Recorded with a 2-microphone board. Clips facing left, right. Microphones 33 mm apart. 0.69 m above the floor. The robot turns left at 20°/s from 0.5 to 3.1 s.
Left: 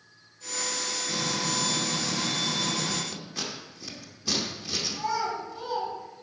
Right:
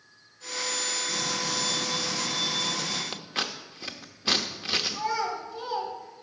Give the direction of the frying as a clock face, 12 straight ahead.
7 o'clock.